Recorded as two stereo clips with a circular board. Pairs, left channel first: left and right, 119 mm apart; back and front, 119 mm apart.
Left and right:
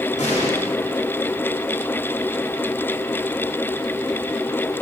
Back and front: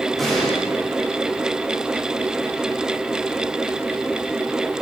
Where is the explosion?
90° left, 3.5 m.